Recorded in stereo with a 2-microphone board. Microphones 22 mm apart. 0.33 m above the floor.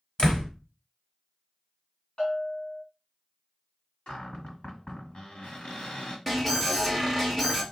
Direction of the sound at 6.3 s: 10° left (ahead or behind).